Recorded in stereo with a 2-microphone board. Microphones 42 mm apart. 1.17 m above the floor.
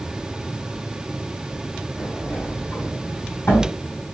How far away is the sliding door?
About 2.5 m.